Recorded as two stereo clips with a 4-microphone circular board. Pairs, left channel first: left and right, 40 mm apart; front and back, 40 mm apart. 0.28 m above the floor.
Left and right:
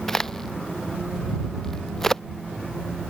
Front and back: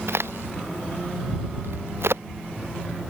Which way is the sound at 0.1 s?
170° left.